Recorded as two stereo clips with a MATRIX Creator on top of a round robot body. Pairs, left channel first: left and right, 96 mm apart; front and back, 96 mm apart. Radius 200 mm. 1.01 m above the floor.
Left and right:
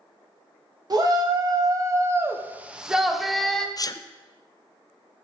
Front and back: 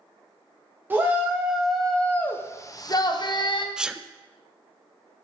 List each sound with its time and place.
0.9 s a shout: 120° right, 1.0 m; by 3.7 s 5° left, 1.1 m
3.8 s a sneeze: 100° left, 0.5 m